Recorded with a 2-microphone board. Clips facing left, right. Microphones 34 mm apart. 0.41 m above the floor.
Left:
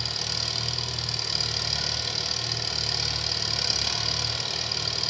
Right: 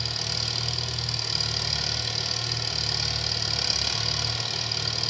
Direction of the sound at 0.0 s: Centre (ahead or behind).